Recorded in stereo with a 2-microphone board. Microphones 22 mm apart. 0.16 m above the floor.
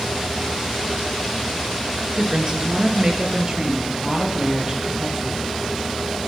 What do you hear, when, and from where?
2.1 s a woman speaking: 40° right (ahead or behind), 2.5 m; by 5.6 s 25° right (ahead or behind), 6 m